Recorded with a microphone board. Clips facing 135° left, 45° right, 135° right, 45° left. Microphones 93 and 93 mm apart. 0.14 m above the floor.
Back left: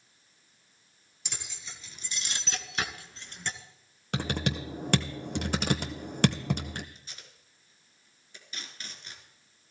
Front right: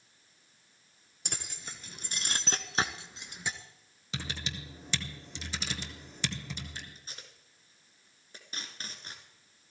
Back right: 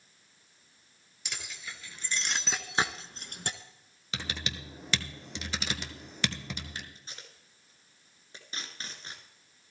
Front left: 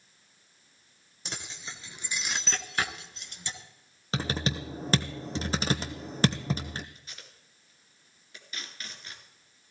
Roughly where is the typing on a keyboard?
Left.